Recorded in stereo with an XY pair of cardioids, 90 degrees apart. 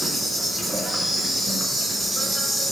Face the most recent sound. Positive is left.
turn(degrees=-20)